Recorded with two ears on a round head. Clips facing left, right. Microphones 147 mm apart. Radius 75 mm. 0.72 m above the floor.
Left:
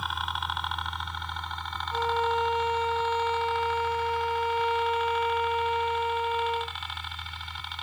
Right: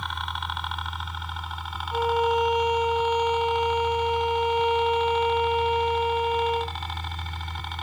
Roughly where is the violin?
Centre.